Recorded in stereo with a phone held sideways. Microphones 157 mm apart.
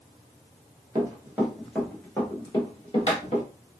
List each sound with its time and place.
0.9 s running footsteps: 20° right (ahead or behind), 1.2 m; by 3.5 s 45° left (ahead or behind), 1.5 m